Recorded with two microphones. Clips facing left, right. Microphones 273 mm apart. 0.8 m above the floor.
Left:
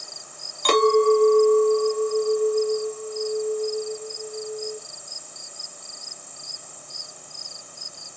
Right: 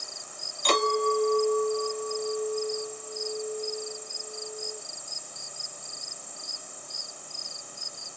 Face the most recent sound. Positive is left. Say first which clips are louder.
# left 10 dB
turn(degrees=65)  # may be behind; listen again after turning